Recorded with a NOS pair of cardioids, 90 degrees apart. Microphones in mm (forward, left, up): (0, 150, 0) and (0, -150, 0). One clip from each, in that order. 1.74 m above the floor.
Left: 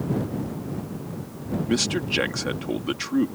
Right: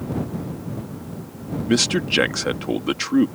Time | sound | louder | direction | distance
1.7 | a man speaking | right 5 dB | 30° right | ?